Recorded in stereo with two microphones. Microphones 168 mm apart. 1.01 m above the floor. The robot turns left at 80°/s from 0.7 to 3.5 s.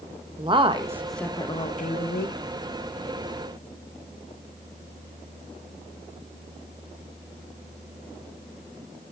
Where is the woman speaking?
150° right, 1.0 m; by 2.4 s 80° left, 1.0 m.